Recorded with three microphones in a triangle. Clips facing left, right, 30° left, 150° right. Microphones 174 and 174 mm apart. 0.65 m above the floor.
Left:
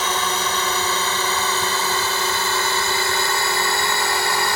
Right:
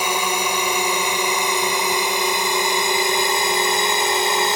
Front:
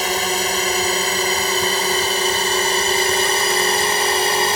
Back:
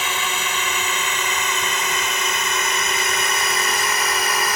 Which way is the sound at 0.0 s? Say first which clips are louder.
Right 1 dB, front 6 dB; 15° right.